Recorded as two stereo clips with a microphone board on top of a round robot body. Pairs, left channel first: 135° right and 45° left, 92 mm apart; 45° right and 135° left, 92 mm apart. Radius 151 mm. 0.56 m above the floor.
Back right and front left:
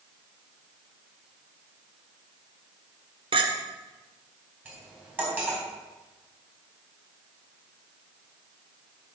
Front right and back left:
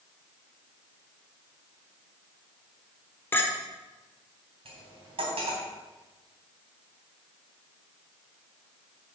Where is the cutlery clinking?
120° left, 3 m.